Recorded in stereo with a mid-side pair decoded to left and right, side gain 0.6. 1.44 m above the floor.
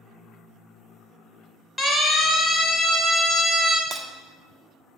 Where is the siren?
10° left, 4 m; by 3.8 s 5° right, 2 m.